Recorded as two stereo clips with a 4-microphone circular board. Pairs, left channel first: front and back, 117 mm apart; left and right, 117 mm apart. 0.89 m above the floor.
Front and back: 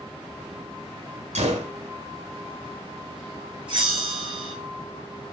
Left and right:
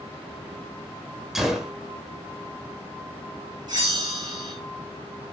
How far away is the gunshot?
About 1.7 m.